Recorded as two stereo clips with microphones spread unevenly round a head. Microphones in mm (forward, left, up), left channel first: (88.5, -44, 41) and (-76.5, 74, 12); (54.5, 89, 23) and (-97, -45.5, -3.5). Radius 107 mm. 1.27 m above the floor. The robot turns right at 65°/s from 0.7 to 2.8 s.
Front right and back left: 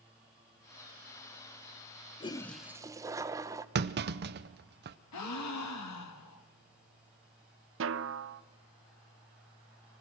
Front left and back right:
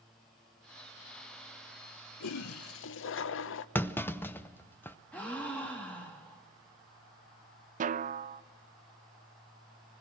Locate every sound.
2.2 s a toilet flushing: 30° left, 0.7 m; by 3.6 s 70° left, 0.7 m
3.8 s a clunk: 125° left, 0.7 m
5.1 s a gasp: 40° right, 1.9 m
7.8 s a snare drum: 170° left, 0.5 m